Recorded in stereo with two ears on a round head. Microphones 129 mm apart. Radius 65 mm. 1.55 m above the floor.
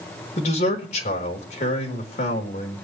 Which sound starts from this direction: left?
A man speaking, at 0.4 s.